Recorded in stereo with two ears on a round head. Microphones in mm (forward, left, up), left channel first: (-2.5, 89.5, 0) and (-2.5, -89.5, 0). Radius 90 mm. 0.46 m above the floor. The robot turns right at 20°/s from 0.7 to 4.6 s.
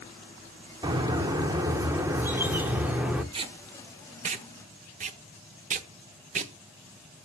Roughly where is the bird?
Right.